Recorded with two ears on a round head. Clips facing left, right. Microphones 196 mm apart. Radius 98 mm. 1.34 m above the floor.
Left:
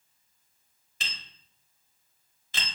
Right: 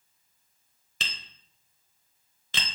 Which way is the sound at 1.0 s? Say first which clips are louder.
Right 2 dB; 55° right (ahead or behind).